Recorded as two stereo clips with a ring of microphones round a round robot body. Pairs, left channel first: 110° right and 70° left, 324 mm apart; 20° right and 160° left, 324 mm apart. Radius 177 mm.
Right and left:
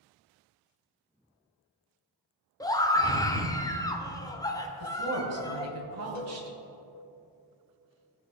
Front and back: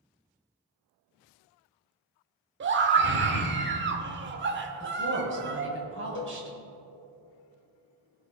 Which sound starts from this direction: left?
A woman speaking, at 4.8 s.